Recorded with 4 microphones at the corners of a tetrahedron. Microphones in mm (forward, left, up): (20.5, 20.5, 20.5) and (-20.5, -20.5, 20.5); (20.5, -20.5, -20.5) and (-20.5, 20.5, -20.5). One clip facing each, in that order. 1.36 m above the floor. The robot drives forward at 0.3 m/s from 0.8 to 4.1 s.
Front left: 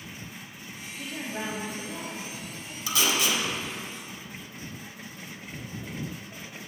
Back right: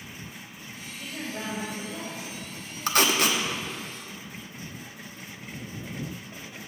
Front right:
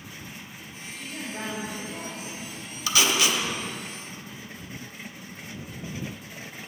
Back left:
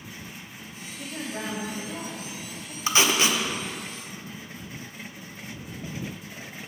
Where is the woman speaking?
85° left, 3 m; by 2.8 s 95° left, 3 m.